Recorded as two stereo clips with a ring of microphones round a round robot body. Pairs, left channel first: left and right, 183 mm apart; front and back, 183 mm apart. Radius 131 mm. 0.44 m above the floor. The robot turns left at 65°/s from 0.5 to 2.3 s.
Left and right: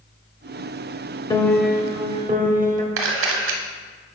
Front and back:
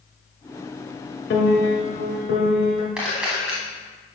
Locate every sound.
1.3 s a piano: 20° left, 1.2 m; by 2.9 s 45° right, 1.2 m
3.0 s a camera shutter: 95° right, 0.9 m